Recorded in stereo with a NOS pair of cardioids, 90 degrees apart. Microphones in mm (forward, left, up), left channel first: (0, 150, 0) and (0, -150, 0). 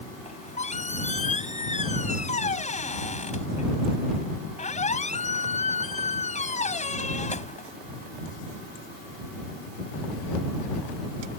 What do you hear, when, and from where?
0.2 s a squeak: 25° left